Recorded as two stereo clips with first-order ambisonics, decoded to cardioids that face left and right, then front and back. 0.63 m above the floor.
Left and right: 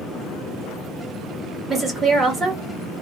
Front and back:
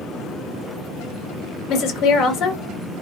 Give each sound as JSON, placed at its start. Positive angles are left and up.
{"t": 1.7, "sound": "a woman speaking", "azimuth_deg": -20, "distance_m": 1.0}